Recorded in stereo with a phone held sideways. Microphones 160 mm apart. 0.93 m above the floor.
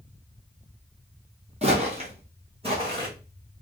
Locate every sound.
1.6 s footsteps: 40° right (ahead or behind), 1.2 m; by 3.1 s 30° right (ahead or behind), 2.5 m